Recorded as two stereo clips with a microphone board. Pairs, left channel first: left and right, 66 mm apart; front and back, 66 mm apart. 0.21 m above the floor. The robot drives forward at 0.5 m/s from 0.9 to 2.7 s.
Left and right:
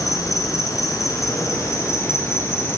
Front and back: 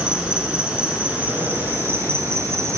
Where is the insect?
105° left, 1.1 m; by 2.8 s 140° left, 1.6 m.